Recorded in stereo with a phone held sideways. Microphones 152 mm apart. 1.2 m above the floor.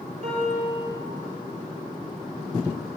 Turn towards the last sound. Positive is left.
turn(degrees=-60)  # may be behind; listen again after turning